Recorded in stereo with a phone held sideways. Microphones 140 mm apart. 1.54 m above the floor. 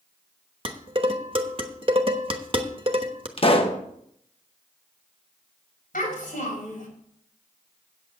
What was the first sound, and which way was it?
Dishes clattering, 40° right (ahead or behind).